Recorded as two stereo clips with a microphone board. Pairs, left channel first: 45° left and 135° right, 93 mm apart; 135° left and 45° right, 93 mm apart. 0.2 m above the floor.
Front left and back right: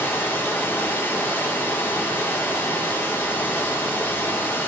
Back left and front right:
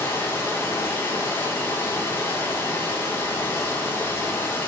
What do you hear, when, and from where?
0.0 s running water: 95° left, 1.7 m